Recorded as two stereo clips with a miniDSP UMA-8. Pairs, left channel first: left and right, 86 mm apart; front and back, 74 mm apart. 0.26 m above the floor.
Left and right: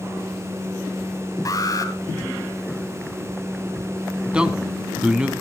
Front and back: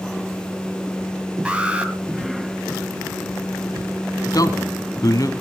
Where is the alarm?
110° left, 1.9 m.